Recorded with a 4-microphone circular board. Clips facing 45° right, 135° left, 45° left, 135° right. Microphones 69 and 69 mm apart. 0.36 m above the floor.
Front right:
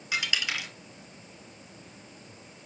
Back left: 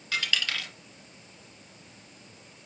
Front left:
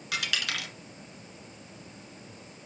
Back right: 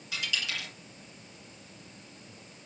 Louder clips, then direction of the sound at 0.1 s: Even, front left 3 dB; 30° left.